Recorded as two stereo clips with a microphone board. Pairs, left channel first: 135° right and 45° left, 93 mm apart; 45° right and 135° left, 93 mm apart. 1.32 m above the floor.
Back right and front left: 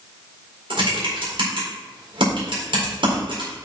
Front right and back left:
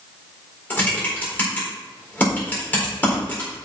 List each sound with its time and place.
0.7 s typing on a keyboard: 25° left, 4 m